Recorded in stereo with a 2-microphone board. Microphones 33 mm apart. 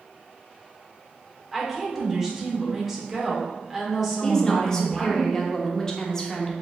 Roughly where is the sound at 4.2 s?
Centre.